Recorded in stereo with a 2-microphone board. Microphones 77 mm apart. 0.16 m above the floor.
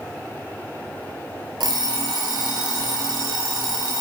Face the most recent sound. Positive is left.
turn(degrees=-70)  # may be behind; listen again after turning